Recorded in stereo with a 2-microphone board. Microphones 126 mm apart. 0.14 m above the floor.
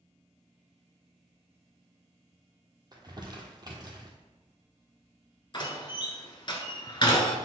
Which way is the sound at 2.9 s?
35° right (ahead or behind).